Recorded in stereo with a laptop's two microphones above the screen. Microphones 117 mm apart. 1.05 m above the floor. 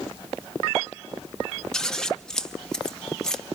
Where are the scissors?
5° left (ahead or behind), 0.9 m.